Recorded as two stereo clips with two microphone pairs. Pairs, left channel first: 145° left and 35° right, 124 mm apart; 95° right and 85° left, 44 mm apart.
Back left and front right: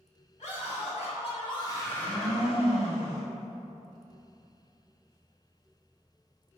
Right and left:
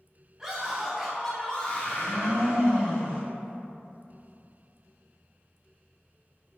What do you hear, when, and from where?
0.4 s a scream: 165° left, 1.9 m; by 2.5 s 115° right, 1.1 m
1.8 s a blender: 125° left, 1.9 m